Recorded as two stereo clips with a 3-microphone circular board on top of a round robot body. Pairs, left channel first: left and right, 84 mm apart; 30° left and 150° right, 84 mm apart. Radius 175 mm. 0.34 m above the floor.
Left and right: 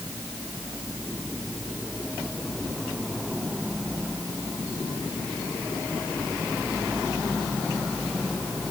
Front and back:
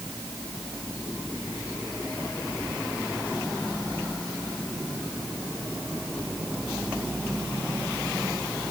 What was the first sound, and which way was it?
Only background noise.